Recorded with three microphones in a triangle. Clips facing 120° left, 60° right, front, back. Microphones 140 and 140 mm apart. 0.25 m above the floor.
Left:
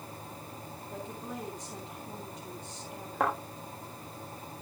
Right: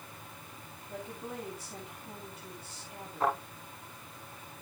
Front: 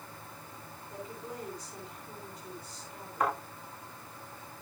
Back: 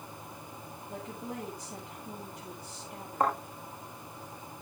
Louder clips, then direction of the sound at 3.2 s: Even, back 2 dB; 120° left.